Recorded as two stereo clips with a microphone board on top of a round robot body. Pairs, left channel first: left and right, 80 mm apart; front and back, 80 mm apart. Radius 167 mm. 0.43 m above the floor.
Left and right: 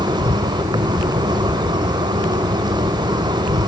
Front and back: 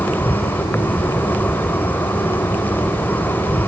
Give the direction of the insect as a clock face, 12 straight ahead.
2 o'clock.